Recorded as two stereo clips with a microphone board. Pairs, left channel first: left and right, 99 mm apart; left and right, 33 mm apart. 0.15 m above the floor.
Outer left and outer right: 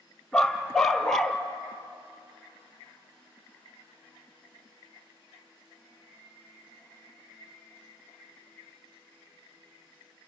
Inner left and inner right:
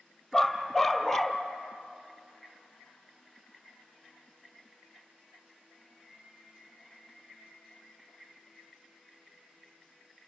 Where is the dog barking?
5° left (ahead or behind), 1.6 m.